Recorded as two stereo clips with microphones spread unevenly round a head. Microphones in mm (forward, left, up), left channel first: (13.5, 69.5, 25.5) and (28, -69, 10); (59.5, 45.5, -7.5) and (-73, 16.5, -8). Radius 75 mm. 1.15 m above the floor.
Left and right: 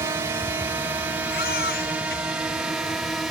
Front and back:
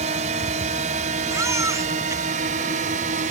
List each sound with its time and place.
0.0 s a drone: 150° right; by 3.3 s 170° right
1.3 s a baby crying: 125° left